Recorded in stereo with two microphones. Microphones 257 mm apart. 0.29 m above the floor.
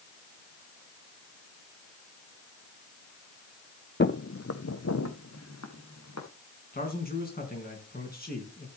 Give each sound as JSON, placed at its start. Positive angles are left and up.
{"t": 4.0, "sound": "footsteps", "side_deg": 45, "distance_m": 0.6}
{"t": 6.7, "sound": "a man speaking", "side_deg": 35, "distance_m": 3.5}